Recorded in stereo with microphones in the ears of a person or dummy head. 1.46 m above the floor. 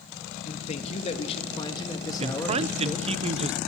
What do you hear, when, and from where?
0.5 s a man speaking: 35° left (ahead or behind), 3 m; by 3.1 s 5° left (ahead or behind), 3 m
2.2 s a man speaking: 30° right (ahead or behind), 0.8 m